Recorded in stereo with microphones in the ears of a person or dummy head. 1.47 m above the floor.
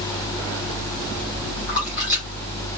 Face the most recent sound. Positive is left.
turn(degrees=0)  # may be behind; listen again after turning